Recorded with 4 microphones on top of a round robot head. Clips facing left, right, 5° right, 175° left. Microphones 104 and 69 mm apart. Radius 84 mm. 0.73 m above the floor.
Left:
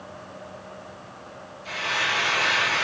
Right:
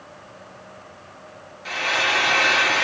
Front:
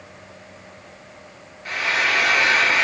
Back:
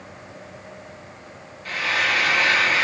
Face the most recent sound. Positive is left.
turn(degrees=-75)